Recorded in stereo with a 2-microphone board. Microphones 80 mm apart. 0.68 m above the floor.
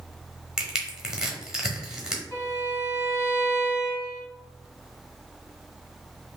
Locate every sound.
0.6 s crushing: 10° right (ahead or behind), 1.0 m
2.3 s a violin: 30° left (ahead or behind), 2.0 m